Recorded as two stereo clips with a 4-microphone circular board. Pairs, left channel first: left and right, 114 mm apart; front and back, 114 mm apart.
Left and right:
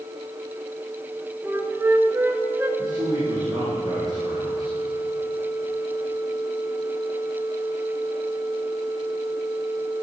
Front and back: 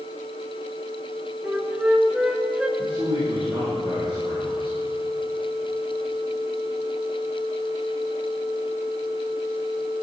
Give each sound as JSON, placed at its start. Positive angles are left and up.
{"t": 1.4, "sound": "a flute", "azimuth_deg": -115, "distance_m": 1.3}
{"t": 2.8, "sound": "a man speaking", "azimuth_deg": -140, "distance_m": 5.5}